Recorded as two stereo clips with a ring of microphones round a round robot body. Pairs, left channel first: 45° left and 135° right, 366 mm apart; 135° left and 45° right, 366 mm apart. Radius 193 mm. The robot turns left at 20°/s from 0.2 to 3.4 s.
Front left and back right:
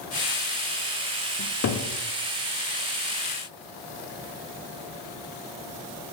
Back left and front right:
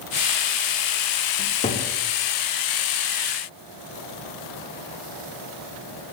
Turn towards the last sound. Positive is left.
turn(degrees=35)